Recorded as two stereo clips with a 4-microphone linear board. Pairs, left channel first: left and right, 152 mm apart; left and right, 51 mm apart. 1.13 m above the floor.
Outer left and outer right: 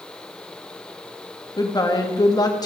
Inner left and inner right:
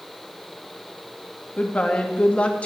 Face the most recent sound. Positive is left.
turn(degrees=25)  # may be behind; listen again after turning